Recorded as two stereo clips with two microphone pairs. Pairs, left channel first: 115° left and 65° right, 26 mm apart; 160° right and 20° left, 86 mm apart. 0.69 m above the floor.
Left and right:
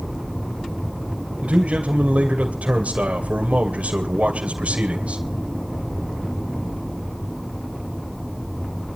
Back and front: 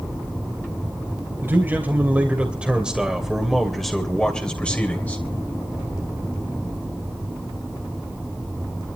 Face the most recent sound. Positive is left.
turn(degrees=-95)